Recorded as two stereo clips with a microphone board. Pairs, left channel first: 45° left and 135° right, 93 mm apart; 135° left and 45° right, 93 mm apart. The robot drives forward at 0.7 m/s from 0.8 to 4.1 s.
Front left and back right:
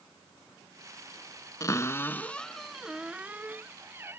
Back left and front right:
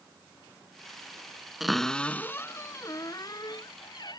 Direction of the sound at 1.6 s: 40° left.